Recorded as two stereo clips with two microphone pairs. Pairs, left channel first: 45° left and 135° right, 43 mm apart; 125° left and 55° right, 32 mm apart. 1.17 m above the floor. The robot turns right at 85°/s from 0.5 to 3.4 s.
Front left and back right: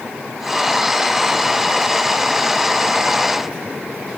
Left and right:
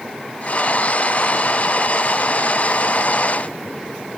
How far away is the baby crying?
No baby crying in this recording.